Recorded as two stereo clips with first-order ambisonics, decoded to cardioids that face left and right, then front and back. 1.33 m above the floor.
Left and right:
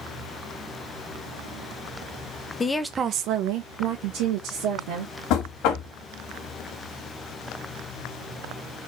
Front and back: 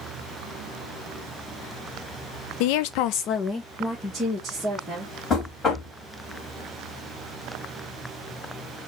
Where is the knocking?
65° left, 1.7 m.